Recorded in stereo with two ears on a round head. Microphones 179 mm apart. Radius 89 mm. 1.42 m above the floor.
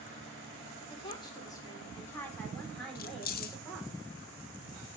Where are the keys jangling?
45° left (ahead or behind), 0.5 m.